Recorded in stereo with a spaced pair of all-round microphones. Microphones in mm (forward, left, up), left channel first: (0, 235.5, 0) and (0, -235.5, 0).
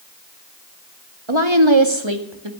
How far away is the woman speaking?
About 2 m.